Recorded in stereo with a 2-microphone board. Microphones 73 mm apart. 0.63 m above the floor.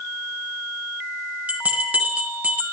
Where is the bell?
20° right (ahead or behind), 2.5 m.